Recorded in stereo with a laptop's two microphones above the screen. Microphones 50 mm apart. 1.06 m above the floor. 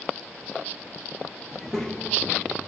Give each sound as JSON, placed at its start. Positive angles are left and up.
{"t": 1.5, "sound": "a child speaking", "side_deg": -5, "distance_m": 0.7}